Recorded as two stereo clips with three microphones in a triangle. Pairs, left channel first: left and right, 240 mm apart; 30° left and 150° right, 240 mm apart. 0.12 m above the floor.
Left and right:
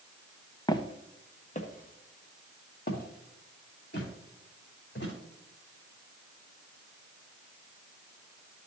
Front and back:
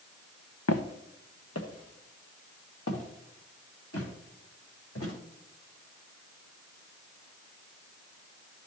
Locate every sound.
0.7 s footsteps: 20° left, 0.8 m; by 5.1 s 50° left, 3.5 m